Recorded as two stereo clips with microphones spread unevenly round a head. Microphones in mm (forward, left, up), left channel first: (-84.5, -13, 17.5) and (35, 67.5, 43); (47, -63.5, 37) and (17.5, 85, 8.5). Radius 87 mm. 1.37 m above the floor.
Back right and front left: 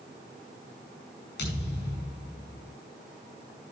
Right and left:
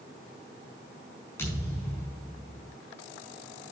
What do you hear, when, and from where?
1.4 s a thud: 155° right, 6 m